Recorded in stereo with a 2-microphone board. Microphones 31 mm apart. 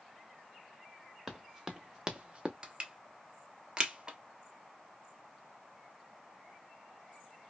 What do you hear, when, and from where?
1.3 s running footsteps: 5° right (ahead or behind), 1.1 m; by 2.5 s 35° right (ahead or behind), 0.6 m
2.6 s crushing: 20° right (ahead or behind), 0.9 m